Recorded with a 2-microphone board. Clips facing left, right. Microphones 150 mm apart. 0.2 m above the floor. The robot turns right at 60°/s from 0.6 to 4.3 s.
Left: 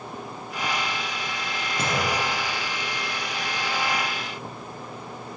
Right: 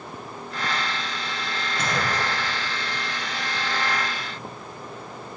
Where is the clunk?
35° left (ahead or behind), 1.3 m; by 3.0 s 40° right (ahead or behind), 1.3 m.